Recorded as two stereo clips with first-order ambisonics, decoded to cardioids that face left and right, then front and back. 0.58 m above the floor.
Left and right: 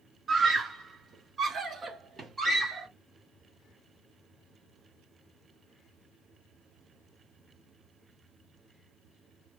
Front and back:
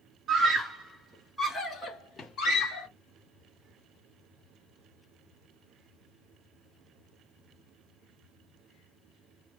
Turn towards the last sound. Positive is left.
turn(degrees=-30)